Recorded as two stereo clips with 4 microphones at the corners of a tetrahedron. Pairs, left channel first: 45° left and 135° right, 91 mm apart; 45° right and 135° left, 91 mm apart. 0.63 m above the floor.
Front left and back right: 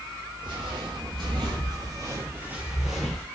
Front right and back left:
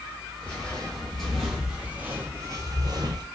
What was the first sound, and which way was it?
Footsteps, 125° right.